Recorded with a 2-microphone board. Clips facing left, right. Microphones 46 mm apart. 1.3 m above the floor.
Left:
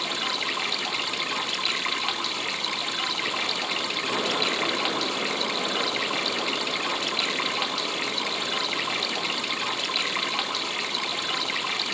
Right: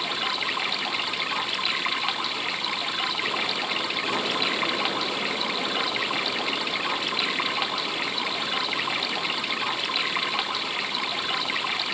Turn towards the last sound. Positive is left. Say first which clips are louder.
# right 1 dB
turn(degrees=-5)  # may be behind; listen again after turning